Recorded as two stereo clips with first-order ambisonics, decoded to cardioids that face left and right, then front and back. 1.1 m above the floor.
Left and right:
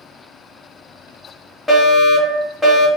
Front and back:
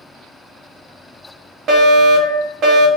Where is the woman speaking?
No woman speaking in this recording.